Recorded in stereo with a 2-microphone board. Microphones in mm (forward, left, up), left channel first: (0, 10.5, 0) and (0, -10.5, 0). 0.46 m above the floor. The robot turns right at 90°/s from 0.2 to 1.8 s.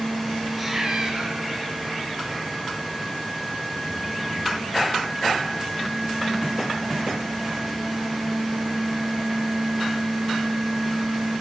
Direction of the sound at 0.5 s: 170° right.